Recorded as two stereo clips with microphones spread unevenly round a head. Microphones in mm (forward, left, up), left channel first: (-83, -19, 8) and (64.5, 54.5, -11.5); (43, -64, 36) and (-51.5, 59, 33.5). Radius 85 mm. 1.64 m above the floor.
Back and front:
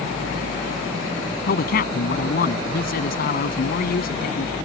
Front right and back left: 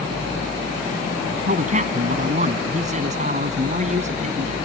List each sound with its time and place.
1.4 s a man speaking: 175° left